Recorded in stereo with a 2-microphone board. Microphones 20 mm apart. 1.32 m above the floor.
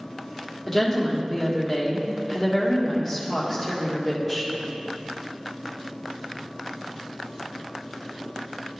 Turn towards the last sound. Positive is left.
turn(degrees=10)  # may be behind; listen again after turning